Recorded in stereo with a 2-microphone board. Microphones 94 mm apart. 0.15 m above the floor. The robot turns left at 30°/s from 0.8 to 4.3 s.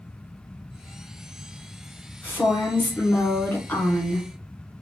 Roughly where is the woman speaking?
Centre.